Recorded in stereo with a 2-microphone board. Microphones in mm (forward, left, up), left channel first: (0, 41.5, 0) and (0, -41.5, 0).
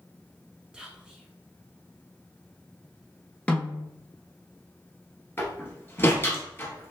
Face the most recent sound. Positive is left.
turn(degrees=30)  # may be behind; listen again after turning